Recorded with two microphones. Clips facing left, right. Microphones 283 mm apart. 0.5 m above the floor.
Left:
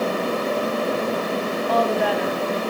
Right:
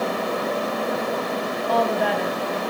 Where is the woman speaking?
Centre (ahead or behind), 3.5 m.